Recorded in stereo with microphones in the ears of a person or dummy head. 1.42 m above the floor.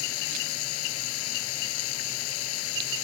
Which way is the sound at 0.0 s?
75° left (ahead or behind).